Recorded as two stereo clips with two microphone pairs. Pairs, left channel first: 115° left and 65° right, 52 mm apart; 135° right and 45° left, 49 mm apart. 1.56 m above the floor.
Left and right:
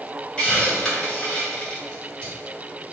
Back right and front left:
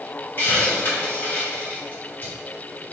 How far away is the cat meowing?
No cat meowing in this recording.